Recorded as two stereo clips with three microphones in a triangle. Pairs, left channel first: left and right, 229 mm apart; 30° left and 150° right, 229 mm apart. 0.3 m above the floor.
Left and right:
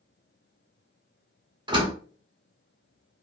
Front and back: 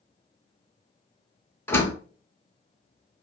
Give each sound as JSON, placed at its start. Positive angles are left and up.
{"t": 1.7, "sound": "a door slam", "azimuth_deg": -40, "distance_m": 0.9}